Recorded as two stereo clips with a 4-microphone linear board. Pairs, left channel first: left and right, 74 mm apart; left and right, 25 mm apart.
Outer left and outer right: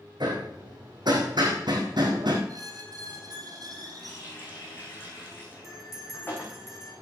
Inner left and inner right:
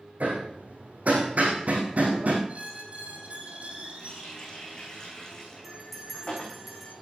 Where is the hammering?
80° right, 4 m.